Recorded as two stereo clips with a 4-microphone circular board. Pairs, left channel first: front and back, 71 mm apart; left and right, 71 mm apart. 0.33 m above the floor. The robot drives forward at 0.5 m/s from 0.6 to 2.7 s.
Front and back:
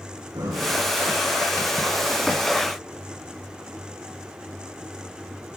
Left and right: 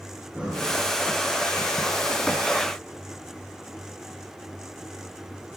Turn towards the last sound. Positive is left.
turn(degrees=-165)